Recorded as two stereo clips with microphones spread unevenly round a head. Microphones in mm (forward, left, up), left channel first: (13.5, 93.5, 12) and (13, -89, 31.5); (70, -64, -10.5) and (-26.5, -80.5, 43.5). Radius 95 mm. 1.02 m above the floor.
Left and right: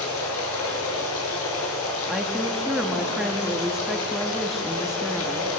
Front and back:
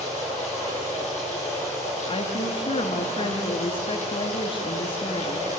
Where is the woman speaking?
Straight ahead, 2 m.